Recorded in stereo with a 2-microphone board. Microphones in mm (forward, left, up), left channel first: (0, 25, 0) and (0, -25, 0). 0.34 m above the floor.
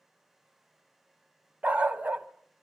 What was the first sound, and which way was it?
A dog barking, 25° right (ahead or behind).